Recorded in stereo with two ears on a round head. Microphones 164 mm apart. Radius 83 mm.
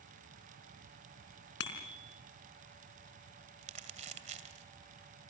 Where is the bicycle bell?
65° left (ahead or behind), 4 m.